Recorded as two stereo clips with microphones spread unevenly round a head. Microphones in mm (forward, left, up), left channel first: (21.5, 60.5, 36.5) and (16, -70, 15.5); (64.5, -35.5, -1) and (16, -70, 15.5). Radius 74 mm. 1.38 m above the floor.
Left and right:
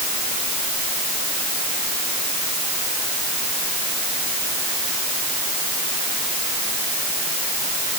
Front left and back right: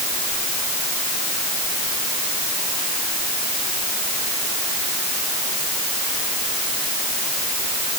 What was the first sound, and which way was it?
Only background noise.